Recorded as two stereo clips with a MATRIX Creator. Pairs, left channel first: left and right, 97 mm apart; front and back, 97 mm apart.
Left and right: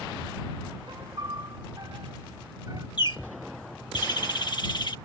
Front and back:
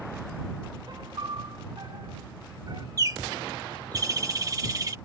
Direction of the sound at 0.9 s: 140° right.